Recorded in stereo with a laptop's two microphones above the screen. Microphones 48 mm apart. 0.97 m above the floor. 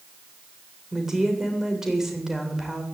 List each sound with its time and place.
0.9 s a woman speaking: 10° right (ahead or behind), 3.5 m